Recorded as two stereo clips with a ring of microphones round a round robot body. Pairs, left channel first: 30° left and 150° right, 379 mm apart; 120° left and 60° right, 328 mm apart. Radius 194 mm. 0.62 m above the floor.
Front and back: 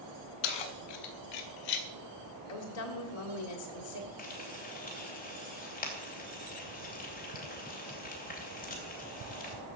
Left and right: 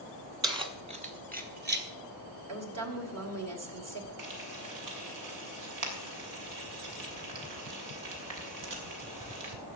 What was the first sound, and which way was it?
Keys jangling, 20° left.